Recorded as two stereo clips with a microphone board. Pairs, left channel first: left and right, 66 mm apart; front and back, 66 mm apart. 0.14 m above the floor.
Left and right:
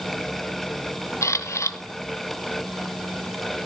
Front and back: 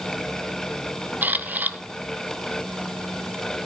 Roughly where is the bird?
No bird in this recording.